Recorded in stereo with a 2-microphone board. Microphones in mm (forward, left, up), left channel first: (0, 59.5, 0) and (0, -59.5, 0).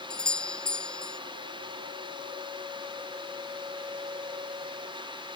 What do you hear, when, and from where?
0.1 s a doorbell: 5° left (ahead or behind)